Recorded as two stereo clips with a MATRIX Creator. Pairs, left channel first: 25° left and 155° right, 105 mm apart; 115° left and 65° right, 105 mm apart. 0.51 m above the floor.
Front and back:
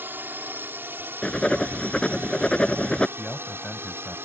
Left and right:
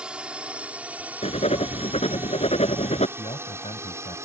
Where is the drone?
130° right; by 4.3 s 105° right.